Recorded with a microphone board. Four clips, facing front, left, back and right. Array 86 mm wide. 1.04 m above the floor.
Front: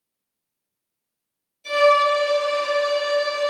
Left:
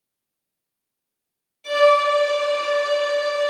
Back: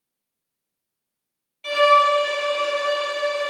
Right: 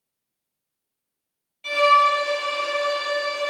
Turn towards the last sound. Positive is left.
turn(degrees=-160)